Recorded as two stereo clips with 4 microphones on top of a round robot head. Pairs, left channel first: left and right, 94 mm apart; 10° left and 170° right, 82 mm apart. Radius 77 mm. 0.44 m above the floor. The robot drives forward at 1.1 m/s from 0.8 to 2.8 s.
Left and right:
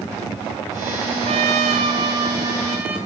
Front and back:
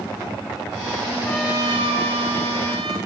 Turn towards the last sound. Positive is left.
turn(degrees=-165)